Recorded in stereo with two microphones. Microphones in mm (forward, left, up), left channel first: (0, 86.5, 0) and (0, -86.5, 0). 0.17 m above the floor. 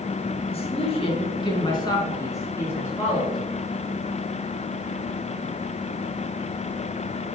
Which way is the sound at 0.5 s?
35° left (ahead or behind).